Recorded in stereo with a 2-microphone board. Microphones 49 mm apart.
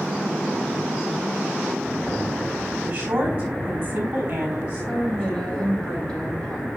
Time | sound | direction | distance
2.8 | a woman speaking | 35° right (ahead or behind) | 4 m
4.9 | a woman speaking | 10° left (ahead or behind) | 4 m